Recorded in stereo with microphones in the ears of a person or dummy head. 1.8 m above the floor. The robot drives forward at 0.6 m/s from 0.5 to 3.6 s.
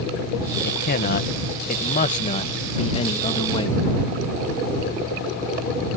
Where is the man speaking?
50° left (ahead or behind); by 3.9 s 25° left (ahead or behind).